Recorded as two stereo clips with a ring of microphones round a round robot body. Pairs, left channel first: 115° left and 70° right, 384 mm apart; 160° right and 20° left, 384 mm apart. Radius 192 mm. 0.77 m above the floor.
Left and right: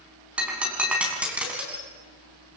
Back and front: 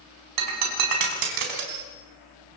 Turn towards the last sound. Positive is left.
turn(degrees=20)